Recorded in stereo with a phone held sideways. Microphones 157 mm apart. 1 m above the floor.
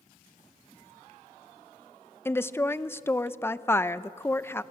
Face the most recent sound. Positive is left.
turn(degrees=15)  # may be behind; listen again after turning